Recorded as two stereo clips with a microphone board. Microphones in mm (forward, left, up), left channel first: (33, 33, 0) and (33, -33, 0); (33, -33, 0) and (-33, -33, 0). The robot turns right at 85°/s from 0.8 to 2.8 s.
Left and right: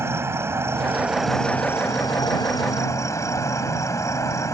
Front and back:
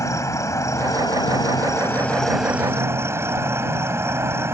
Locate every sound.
0.0 s an insect: 40° right; by 4.5 s 130° left